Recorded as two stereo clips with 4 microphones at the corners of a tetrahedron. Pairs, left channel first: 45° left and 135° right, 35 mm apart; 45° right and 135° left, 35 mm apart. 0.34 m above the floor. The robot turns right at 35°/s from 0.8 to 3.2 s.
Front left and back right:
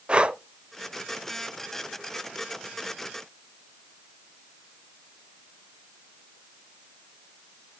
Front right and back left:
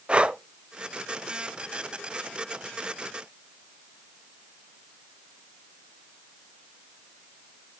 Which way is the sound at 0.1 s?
Straight behind.